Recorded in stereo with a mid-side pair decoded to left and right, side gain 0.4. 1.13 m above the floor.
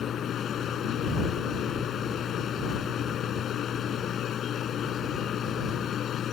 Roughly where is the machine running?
Ahead left.